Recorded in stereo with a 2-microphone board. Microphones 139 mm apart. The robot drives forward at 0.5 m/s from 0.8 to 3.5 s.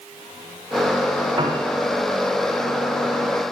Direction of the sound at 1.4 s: 30° right (ahead or behind).